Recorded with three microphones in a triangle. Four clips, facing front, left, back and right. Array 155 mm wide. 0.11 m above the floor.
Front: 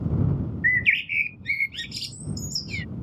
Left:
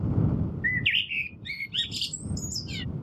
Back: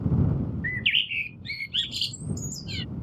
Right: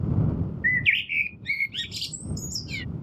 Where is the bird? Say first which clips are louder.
Right 4 dB, front 7 dB; 110° right.